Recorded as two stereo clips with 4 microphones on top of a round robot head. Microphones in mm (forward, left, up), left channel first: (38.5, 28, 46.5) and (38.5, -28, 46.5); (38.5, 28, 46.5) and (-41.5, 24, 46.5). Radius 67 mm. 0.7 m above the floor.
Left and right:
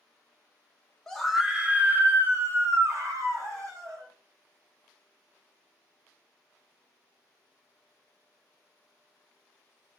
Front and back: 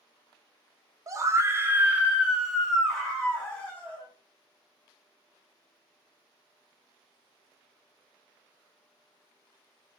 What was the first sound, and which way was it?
A scream, 170° left.